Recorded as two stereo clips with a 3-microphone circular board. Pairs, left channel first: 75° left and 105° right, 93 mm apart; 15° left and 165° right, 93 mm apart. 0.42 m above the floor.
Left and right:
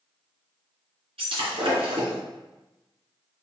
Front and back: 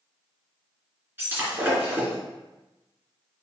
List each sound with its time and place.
1.2 s breaking glass: 100° right, 3 m